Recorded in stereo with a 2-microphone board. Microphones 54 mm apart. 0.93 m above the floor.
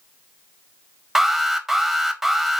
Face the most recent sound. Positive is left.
turn(degrees=-5)  # may be behind; listen again after turning